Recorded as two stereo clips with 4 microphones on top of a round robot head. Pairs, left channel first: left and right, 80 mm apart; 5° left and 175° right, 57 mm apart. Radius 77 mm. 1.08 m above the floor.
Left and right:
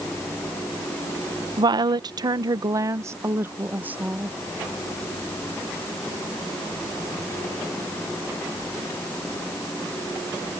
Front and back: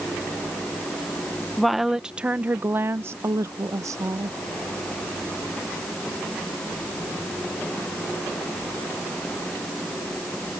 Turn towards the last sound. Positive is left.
turn(degrees=-165)